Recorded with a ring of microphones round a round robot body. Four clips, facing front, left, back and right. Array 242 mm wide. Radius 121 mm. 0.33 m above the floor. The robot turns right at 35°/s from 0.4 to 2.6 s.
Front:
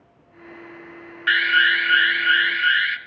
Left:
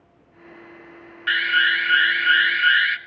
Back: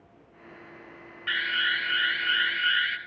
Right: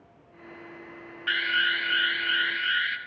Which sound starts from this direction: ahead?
An alarm, at 1.3 s.